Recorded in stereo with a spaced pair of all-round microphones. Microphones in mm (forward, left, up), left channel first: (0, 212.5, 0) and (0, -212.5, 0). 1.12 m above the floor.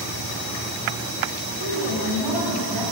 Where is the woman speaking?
60° right (ahead or behind), 3 m; by 2.8 s 45° right (ahead or behind), 3 m.